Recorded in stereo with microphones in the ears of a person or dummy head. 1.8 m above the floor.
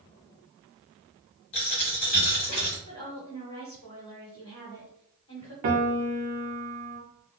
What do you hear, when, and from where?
1.5 s a dropped coin: 35° left (ahead or behind), 1.3 m
2.8 s a woman speaking: 20° left (ahead or behind), 1.7 m
5.6 s a piano: 40° right (ahead or behind), 0.6 m